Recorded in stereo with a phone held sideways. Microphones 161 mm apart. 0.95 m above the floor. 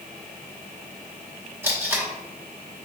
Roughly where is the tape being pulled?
Centre.